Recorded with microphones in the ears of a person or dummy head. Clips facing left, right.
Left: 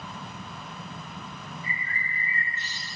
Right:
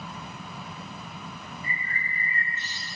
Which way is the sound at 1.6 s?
55° right (ahead or behind).